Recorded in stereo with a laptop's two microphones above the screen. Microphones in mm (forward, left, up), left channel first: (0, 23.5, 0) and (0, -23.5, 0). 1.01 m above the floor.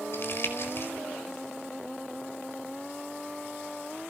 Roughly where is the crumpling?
Left.